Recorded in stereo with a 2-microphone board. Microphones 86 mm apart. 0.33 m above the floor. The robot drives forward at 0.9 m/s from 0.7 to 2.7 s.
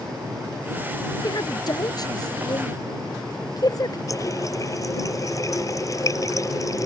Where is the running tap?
40° left (ahead or behind).